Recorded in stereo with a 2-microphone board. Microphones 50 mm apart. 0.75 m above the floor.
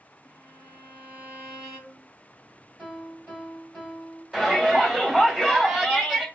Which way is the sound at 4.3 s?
15° right (ahead or behind).